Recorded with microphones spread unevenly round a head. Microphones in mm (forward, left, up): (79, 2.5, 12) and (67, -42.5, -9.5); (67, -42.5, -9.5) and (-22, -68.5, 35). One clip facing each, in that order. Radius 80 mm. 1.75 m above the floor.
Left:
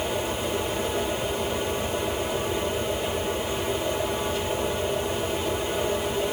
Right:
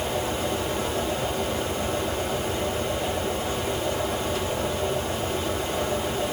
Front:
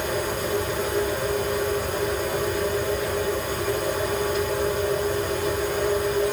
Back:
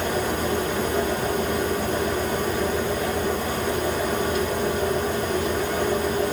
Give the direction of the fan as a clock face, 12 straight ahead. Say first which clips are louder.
Right 1 dB, back 2 dB; 6 o'clock.